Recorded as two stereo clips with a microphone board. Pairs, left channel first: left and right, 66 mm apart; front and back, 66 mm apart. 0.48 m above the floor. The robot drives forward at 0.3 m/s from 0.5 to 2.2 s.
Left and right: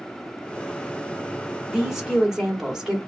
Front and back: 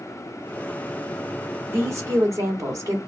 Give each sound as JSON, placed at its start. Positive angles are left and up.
{"t": 1.7, "sound": "a woman speaking", "azimuth_deg": -170, "distance_m": 0.9}